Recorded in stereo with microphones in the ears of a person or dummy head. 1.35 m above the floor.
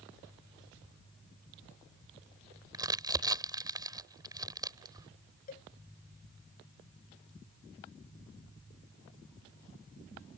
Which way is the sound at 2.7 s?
20° right (ahead or behind).